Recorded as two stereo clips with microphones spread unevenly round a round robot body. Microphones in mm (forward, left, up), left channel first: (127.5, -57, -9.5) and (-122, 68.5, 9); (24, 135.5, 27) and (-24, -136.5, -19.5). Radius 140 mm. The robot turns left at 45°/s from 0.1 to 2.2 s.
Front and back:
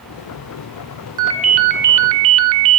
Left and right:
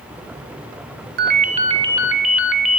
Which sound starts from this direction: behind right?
A ringtone, at 1.2 s.